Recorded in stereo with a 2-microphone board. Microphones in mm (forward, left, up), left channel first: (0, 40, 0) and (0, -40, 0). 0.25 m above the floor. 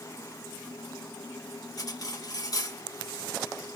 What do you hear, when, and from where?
1.8 s cutlery clinking: 45° left (ahead or behind), 1.3 m